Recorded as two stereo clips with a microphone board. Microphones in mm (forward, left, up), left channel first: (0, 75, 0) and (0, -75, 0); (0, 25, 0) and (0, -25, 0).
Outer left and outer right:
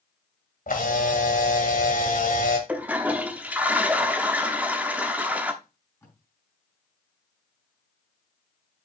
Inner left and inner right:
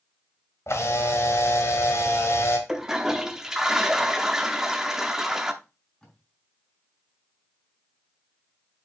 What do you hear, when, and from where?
0.7 s a camera shutter: 65° left (ahead or behind), 1.9 m
2.7 s a toilet flushing: 10° right (ahead or behind), 1.0 m
5.6 s tape being pulled: 20° left (ahead or behind), 4.5 m